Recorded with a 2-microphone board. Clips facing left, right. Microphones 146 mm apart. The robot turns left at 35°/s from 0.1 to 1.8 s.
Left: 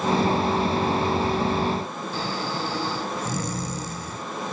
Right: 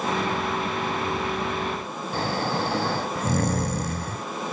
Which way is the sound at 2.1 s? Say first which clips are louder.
Right 4 dB; 60° right (ahead or behind).